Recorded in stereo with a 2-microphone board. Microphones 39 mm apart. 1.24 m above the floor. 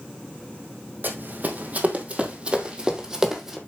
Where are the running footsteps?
50° right (ahead or behind), 2 m; by 3.6 s 5° right (ahead or behind), 2 m.